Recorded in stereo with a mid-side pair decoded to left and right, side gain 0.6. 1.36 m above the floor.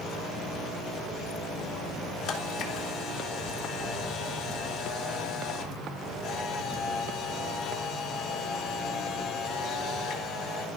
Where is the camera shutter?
65° left, 3 m.